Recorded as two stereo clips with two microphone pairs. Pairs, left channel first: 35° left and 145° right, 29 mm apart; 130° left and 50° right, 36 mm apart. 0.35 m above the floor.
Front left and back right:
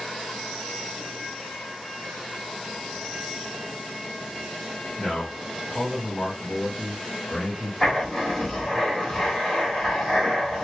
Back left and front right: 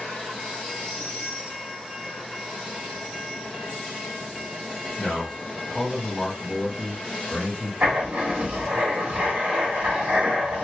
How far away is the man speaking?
About 1.9 m.